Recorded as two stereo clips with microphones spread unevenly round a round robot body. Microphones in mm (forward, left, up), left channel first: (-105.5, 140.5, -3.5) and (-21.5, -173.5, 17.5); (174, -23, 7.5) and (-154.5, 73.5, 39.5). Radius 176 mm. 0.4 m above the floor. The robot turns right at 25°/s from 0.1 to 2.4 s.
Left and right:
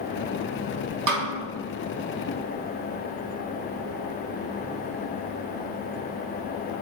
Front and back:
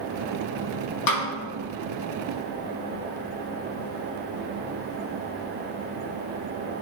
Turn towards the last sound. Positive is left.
turn(degrees=-10)